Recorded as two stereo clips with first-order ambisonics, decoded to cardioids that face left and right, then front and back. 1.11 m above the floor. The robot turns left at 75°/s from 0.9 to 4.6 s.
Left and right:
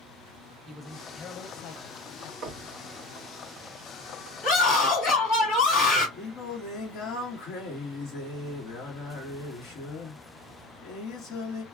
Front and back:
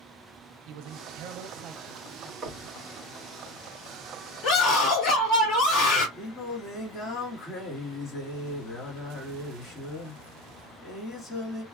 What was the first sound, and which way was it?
A man speaking, straight behind.